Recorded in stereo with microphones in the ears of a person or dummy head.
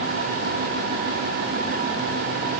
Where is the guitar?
I don't hear a guitar.